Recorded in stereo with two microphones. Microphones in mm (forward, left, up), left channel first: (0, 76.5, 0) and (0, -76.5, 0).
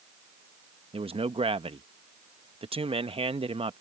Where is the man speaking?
35° right (ahead or behind).